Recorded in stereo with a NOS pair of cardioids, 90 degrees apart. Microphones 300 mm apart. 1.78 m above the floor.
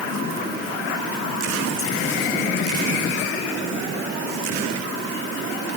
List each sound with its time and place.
Only background noise.